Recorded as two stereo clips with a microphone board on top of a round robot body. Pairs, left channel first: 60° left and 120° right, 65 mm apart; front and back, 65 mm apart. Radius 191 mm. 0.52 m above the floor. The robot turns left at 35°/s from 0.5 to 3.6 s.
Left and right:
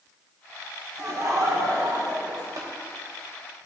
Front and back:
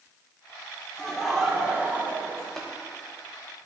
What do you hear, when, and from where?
1.0 s laughter: 80° right, 2 m; by 2.5 s 130° right, 2 m
2.6 s tapping: 80° right, 0.9 m; by 2.7 s 85° right, 0.9 m